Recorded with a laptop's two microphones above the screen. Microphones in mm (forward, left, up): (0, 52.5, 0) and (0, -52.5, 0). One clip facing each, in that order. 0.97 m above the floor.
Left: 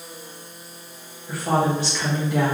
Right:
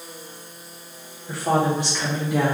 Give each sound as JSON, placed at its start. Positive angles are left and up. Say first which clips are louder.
{"t": 1.3, "sound": "a woman speaking", "louder": "even", "side_deg": -25, "distance_m": 1.5}